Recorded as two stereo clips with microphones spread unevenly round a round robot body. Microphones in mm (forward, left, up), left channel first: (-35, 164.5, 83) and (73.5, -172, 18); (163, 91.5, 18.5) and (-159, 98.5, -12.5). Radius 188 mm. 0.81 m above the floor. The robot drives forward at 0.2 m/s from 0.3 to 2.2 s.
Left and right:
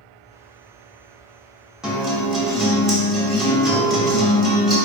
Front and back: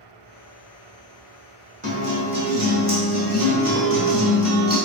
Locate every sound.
1.8 s a guitar: 145° right, 0.9 m; by 4.8 s 150° right, 0.9 m